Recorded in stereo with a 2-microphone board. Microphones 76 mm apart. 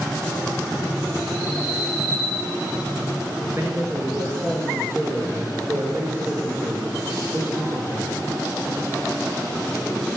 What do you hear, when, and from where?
3.5 s a man speaking: 35° right (ahead or behind), 2 m